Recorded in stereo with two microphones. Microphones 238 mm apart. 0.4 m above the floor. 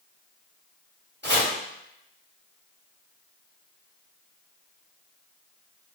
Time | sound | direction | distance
1.2 | chopping | 45° right (ahead or behind) | 1.4 m